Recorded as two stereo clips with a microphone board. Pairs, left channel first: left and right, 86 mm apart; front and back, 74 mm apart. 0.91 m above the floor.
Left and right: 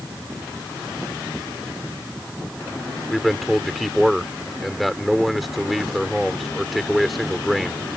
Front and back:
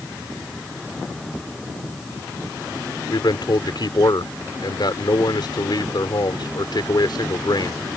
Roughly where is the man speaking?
Ahead.